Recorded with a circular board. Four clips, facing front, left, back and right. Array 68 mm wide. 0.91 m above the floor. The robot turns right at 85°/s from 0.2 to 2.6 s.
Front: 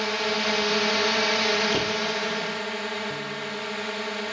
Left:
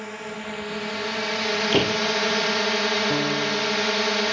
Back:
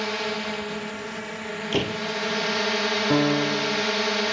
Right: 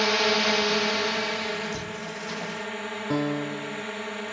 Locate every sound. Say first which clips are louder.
0.0 s a drone: right 10 dB, front 2 dB; 85° right; by 4.3 s 120° left
1.7 s a door slam: left 13 dB, even; 100° left; by 2.0 s 125° left
3.1 s a piano: left 3 dB, back 11 dB; 170° right